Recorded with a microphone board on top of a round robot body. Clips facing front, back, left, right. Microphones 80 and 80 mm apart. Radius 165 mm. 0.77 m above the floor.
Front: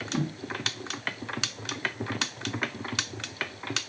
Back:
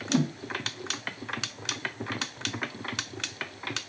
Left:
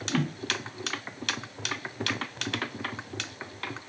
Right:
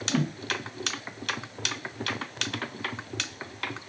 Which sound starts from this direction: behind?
A whoosh, at 0.1 s.